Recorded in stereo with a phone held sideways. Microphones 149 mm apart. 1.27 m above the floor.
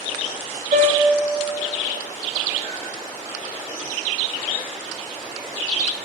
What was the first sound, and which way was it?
A piano, 75° right (ahead or behind).